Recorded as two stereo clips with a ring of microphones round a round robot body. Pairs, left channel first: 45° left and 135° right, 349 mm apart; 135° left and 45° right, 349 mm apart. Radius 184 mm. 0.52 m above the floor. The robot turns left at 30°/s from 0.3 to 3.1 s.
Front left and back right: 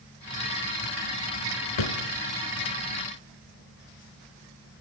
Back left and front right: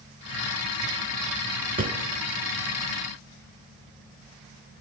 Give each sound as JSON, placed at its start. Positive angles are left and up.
{"t": 1.8, "sound": "a drawer", "azimuth_deg": 25, "distance_m": 1.8}